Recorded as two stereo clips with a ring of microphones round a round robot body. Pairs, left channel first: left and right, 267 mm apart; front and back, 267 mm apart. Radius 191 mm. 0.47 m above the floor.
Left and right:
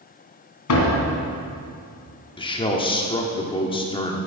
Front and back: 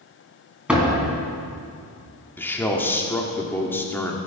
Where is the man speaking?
65° left, 1.4 m.